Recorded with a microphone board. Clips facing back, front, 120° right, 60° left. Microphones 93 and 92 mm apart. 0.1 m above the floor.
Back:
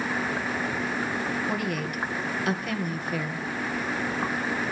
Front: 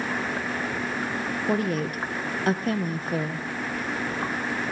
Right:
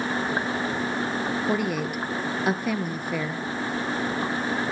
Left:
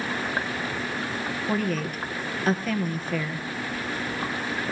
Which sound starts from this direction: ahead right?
A woman speaking, at 1.5 s.